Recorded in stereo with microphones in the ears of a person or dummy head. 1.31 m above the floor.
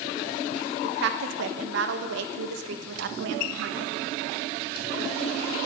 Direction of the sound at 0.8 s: 70° right (ahead or behind).